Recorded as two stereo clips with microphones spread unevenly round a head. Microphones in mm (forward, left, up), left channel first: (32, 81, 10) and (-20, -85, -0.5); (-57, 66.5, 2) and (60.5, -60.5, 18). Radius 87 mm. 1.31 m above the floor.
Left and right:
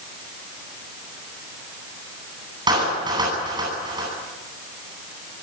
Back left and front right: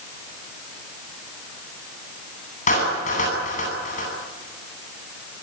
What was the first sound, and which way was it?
A clap, 175° right.